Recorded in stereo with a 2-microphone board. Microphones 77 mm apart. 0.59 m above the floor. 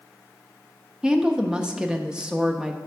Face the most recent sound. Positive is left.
turn(degrees=-10)  # may be behind; listen again after turning